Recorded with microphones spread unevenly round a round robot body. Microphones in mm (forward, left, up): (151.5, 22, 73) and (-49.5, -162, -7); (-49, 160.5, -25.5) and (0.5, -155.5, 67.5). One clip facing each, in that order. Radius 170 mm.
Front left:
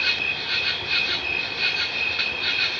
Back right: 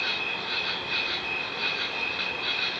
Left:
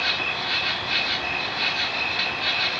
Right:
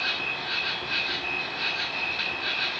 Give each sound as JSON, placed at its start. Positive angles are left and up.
{"t": 0.0, "sound": "an insect", "azimuth_deg": 95, "distance_m": 1.0}